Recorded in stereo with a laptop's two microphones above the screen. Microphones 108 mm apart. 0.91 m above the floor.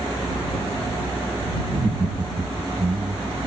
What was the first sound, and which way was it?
Laughter, 25° right (ahead or behind).